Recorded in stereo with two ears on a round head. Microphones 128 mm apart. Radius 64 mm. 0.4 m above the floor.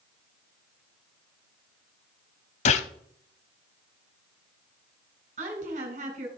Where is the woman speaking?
55° right (ahead or behind), 3.5 m.